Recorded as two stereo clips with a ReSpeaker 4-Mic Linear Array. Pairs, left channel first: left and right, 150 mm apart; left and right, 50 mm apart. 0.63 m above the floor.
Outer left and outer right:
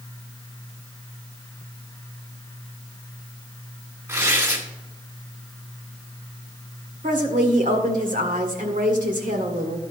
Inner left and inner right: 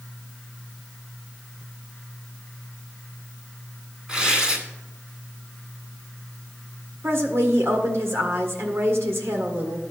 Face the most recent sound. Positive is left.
turn(degrees=-65)  # may be behind; listen again after turning